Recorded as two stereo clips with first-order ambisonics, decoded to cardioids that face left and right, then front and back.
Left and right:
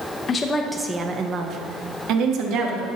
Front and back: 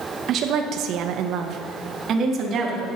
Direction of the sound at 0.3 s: 145° left.